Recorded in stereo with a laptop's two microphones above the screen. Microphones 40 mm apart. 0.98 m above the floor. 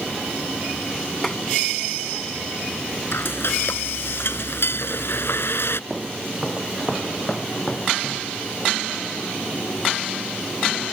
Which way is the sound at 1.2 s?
10° left (ahead or behind).